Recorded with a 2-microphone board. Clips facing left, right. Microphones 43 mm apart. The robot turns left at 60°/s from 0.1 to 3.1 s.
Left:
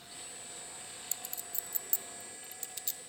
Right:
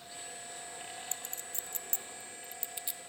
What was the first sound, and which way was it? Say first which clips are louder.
A clink: right 2 dB; 45° right (ahead or behind).